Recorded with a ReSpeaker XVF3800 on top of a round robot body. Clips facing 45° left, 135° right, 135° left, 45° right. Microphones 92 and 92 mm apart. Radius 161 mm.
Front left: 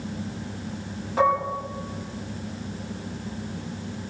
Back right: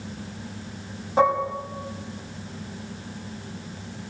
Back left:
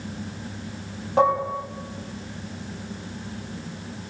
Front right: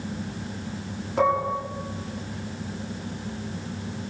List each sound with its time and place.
1.2 s dishes clattering: 160° left, 7 m